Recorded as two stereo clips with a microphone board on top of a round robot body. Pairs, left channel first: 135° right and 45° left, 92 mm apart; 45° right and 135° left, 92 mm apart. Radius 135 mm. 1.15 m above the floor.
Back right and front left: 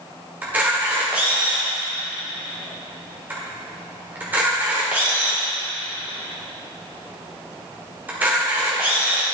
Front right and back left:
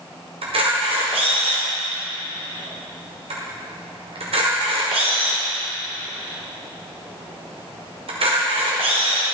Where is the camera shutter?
115° left, 1.7 m.